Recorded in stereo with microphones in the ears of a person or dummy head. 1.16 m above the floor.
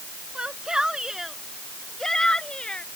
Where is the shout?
5° right (ahead or behind); by 2.9 s 5° left (ahead or behind).